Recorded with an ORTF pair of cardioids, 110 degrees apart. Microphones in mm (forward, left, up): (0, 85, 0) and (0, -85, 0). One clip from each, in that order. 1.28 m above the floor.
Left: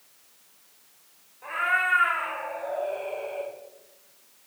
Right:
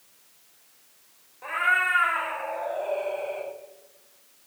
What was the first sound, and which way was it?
A cat meowing, 25° right.